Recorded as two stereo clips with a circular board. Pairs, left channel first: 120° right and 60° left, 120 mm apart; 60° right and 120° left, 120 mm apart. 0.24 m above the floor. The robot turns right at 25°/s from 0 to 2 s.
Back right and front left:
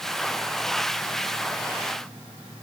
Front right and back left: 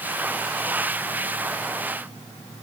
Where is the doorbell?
I don't hear a doorbell.